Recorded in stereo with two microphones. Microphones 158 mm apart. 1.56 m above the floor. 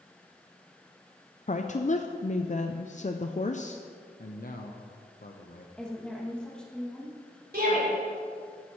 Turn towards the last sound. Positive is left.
turn(degrees=-85)